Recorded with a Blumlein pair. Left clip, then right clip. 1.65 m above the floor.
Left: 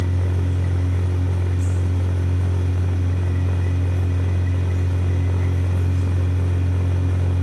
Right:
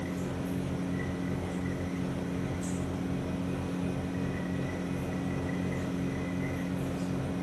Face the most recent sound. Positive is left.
turn(degrees=45)